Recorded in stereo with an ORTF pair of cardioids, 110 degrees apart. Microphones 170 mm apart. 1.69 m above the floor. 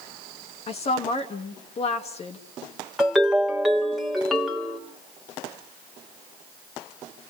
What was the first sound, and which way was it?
A woman speaking, 40° left.